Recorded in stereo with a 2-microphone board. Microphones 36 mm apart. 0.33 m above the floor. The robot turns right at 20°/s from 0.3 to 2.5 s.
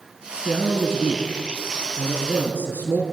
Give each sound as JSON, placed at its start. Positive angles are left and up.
{"t": 0.5, "sound": "a man speaking", "azimuth_deg": 15, "distance_m": 4.5}